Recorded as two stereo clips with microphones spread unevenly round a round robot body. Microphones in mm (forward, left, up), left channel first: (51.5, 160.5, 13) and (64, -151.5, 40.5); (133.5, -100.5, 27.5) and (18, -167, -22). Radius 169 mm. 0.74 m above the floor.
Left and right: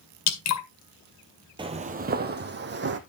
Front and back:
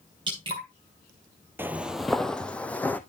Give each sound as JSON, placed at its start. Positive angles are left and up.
{"t": 0.3, "sound": "dripping", "azimuth_deg": 140, "distance_m": 1.9}
{"t": 1.6, "sound": "footsteps", "azimuth_deg": -50, "distance_m": 0.8}